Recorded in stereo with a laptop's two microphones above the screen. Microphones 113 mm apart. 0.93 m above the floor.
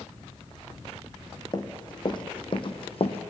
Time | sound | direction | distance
1.5 | running footsteps | 35° left (ahead or behind) | 2.5 m